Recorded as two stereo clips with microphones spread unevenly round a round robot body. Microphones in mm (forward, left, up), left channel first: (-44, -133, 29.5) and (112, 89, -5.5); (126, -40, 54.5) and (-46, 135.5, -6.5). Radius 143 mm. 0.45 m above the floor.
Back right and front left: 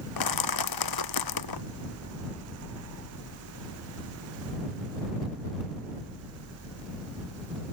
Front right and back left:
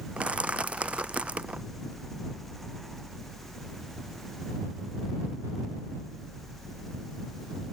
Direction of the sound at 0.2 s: 140° right.